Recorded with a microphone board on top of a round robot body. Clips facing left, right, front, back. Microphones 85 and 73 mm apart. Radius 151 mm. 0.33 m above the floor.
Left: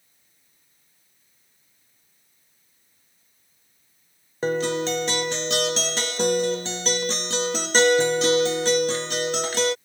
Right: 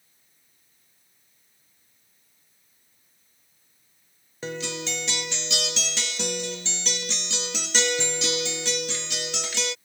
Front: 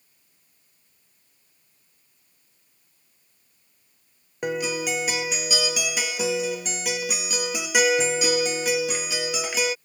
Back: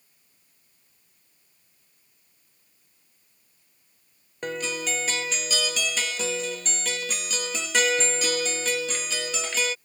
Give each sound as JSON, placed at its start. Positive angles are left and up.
{"t": 4.4, "sound": "a guitar", "azimuth_deg": 75}